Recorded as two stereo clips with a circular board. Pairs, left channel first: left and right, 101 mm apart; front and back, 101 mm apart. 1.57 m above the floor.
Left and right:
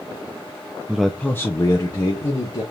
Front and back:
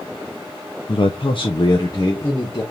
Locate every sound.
0.9 s a man speaking: 15° right, 0.6 m; by 2.6 s 60° left, 1.6 m